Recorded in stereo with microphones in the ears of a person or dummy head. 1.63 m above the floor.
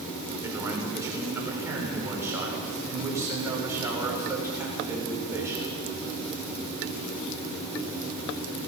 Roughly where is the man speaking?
Centre.